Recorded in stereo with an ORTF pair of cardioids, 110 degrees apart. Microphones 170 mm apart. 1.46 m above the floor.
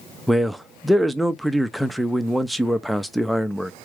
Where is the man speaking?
Straight ahead, 0.6 m.